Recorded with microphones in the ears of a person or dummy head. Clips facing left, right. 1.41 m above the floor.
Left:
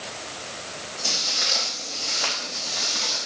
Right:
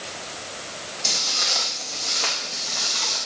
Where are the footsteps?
10° left (ahead or behind), 4.5 m; by 3.3 s 25° left (ahead or behind), 4 m.